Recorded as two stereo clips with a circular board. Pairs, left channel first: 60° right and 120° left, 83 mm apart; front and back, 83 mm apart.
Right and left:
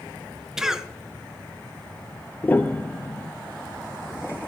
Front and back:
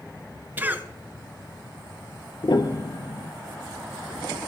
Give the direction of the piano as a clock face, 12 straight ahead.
12 o'clock.